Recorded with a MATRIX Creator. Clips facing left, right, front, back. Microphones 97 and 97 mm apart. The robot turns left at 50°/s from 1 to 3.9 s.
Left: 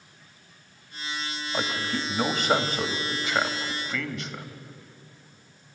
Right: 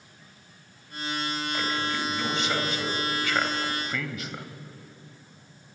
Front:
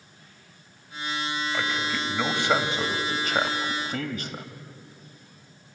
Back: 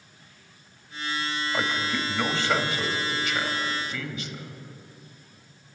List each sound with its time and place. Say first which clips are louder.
1.5 s a man speaking: left 2 dB, back 3 dB; 115° left, 2 m; by 4.5 s 5° right, 2 m